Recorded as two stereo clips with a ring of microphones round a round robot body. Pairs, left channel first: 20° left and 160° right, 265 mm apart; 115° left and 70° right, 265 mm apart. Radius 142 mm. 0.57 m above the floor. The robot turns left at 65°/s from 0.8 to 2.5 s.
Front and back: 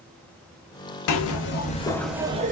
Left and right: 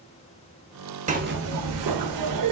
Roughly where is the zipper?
Ahead.